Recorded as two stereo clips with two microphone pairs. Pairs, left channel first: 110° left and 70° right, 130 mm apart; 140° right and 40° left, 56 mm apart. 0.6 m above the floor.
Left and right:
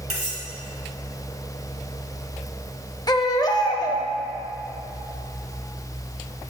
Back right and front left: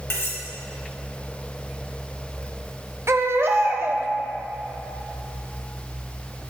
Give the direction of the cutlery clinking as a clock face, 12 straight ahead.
3 o'clock.